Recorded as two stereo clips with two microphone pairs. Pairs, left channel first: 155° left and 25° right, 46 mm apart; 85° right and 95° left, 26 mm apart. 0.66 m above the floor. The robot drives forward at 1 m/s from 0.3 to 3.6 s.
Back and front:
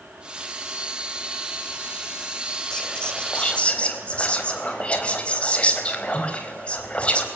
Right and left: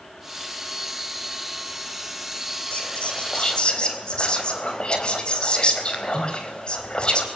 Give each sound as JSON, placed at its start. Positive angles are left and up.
{"t": 2.7, "sound": "whispering", "azimuth_deg": -130, "distance_m": 3.5}